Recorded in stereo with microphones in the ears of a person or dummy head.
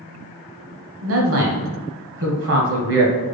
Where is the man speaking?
65° right (ahead or behind), 1.0 m.